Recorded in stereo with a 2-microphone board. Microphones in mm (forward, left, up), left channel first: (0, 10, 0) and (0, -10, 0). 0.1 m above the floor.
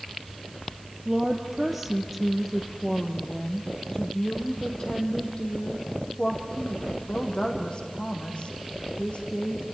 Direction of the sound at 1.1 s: 15° right (ahead or behind).